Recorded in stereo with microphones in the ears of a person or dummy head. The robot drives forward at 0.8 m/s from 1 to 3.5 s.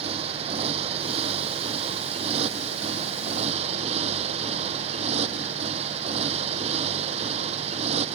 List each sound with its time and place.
0.0 s a motorcycle: 45° right (ahead or behind)